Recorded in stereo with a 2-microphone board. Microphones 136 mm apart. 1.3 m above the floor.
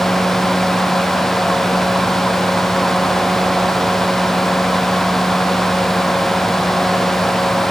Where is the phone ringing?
I don't hear a phone ringing.